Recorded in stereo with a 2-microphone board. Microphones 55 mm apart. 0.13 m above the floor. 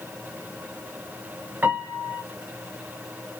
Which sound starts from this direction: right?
A piano, at 1.6 s.